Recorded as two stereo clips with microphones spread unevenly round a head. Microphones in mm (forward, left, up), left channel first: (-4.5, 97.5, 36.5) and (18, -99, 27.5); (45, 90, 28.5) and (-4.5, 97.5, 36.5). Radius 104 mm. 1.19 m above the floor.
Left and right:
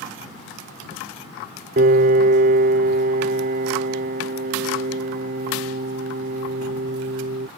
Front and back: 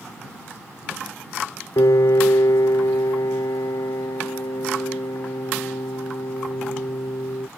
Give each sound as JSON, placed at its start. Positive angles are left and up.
{"t": 1.8, "sound": "a piano", "azimuth_deg": -35}